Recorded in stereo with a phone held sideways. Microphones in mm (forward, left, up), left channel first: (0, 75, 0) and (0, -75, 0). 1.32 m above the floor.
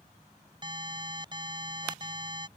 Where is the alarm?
30° right (ahead or behind).